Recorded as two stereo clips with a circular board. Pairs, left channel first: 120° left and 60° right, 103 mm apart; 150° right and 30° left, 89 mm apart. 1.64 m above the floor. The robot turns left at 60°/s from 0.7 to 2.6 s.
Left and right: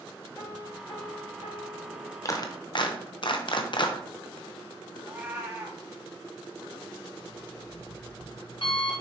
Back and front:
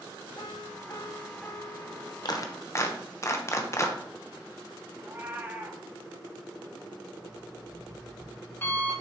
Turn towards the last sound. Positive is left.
turn(degrees=150)